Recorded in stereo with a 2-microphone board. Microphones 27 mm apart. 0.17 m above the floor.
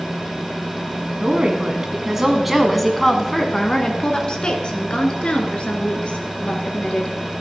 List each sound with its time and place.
1.2 s a woman speaking: 30° right (ahead or behind), 1.3 m; by 7.2 s 50° left (ahead or behind), 3 m